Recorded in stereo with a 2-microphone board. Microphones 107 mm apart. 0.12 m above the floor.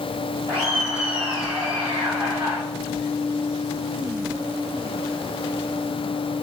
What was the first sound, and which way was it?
Laughter, 55° right (ahead or behind).